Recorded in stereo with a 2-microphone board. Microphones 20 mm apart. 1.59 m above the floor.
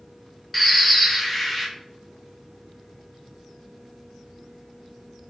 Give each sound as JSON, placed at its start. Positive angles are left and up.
{"t": 0.5, "sound": "a bird", "side_deg": -5, "distance_m": 0.6}